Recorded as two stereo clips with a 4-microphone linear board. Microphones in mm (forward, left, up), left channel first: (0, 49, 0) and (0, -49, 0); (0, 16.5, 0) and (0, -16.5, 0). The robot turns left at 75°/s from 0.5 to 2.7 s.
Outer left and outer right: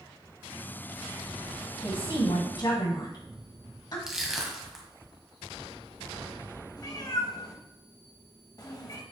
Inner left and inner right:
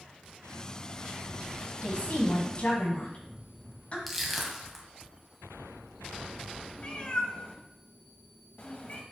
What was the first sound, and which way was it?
A woman speaking, 45° left (ahead or behind).